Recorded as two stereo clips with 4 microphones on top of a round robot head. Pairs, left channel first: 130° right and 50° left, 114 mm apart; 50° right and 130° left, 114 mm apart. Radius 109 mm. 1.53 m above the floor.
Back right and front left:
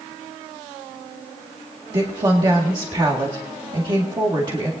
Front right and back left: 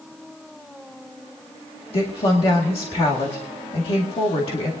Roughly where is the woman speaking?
Ahead.